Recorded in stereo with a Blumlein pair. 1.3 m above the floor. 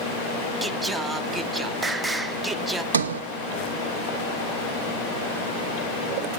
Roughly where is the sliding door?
Ahead right.